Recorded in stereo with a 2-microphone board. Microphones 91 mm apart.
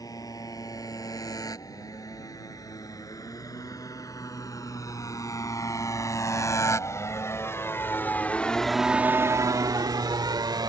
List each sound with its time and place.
0.0 s a motorcycle: 40° left (ahead or behind); by 10.7 s 50° right (ahead or behind)